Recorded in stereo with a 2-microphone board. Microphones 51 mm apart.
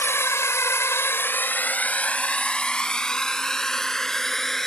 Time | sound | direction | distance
0.0 | a drone | 55° left (ahead or behind) | ?